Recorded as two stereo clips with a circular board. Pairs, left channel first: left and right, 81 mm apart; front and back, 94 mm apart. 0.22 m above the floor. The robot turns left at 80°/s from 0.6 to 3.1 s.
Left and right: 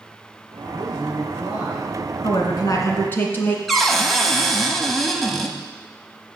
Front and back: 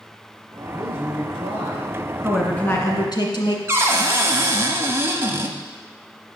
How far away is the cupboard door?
About 1.0 m.